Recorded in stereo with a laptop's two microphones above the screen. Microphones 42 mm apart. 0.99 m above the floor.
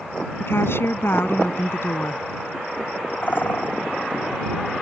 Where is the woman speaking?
65° left (ahead or behind).